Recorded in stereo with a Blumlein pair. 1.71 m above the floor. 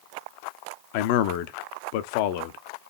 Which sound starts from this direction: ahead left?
A man speaking, at 0.9 s.